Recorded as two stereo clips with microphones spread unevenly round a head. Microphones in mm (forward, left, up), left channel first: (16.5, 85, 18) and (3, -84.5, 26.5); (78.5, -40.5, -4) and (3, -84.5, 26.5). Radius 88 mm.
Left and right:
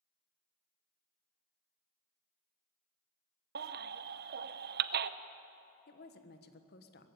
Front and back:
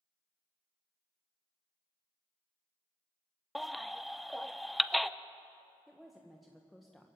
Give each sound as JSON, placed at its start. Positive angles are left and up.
{"t": 3.5, "sound": "a baby crying", "azimuth_deg": -70, "distance_m": 0.6}
{"t": 5.9, "sound": "a woman speaking", "azimuth_deg": 120, "distance_m": 1.3}